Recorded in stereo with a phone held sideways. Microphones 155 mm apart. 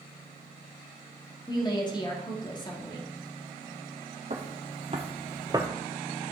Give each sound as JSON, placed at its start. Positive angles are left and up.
{"t": 1.5, "sound": "a woman speaking", "side_deg": 30, "distance_m": 1.9}
{"t": 4.3, "sound": "footsteps", "side_deg": -50, "distance_m": 1.7}